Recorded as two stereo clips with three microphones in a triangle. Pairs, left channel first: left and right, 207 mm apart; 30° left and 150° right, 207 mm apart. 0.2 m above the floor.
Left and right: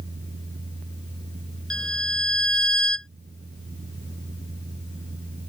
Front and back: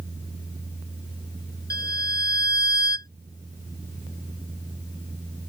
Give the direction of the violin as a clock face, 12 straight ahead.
4 o'clock.